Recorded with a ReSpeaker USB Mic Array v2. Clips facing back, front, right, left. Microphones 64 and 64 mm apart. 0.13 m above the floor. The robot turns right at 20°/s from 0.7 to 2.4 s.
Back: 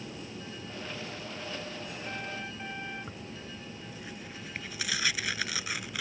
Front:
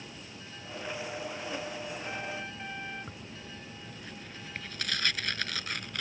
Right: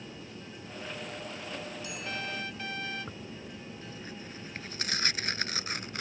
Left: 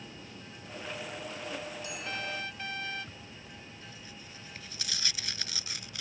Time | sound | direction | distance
0.0 | an aircraft | 150° right | ?
3.1 | tearing paper | 100° right | ?